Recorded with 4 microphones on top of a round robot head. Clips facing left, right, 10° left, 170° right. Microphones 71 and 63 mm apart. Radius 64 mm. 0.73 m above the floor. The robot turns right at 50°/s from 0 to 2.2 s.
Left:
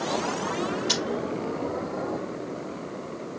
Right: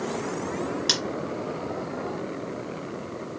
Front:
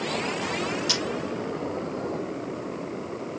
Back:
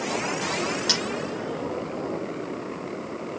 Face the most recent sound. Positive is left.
turn(degrees=-55)